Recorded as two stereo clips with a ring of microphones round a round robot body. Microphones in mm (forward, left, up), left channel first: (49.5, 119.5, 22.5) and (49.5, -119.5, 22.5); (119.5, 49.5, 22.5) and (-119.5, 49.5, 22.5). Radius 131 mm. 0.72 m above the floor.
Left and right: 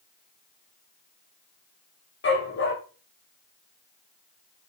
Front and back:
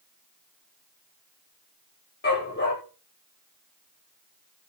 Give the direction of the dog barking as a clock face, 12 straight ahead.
10 o'clock.